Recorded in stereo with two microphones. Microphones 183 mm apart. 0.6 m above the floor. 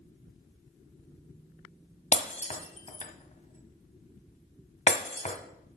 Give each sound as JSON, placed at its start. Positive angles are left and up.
{"t": 2.1, "sound": "breaking glass", "side_deg": 40, "distance_m": 1.1}